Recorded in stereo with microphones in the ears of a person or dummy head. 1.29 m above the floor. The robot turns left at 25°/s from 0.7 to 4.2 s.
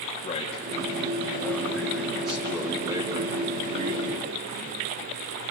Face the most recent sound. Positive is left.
turn(degrees=-50)